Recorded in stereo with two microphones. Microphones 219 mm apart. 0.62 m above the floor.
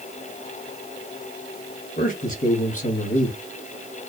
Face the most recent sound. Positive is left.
turn(degrees=40)  # may be behind; listen again after turning